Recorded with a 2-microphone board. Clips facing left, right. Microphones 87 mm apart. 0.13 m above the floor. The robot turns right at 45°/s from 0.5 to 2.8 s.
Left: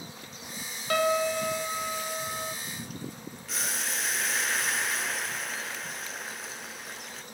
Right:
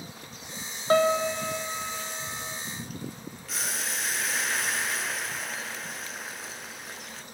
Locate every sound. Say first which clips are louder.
0.9 s a piano: right 3 dB; 35° right, 1.1 m; by 2.5 s 40° left, 1.1 m
3.5 s boiling: even; centre (ahead or behind), 1.0 m